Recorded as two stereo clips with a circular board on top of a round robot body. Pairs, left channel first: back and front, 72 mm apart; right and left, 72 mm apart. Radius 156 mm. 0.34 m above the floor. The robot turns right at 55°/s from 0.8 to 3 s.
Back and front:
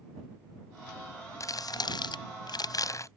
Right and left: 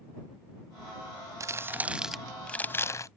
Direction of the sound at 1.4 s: 135° left.